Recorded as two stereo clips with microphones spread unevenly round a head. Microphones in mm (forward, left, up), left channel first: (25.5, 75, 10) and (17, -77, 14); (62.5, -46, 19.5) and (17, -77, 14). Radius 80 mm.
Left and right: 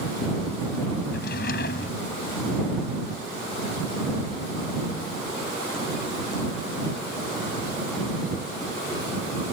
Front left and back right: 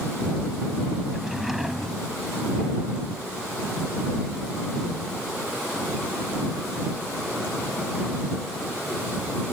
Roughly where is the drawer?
Behind left.